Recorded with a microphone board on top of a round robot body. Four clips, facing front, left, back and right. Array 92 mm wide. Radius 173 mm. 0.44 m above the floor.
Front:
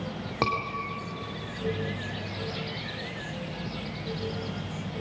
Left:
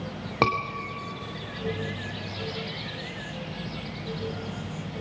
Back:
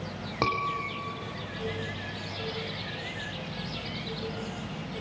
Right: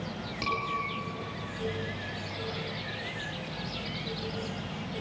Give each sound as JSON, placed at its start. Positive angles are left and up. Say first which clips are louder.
{"t": 0.4, "sound": "a scream", "louder": "left 9 dB, front 1 dB", "azimuth_deg": 90, "distance_m": 2.0}